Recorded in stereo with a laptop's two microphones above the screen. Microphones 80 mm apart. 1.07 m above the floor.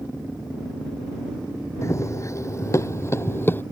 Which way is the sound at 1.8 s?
40° left (ahead or behind).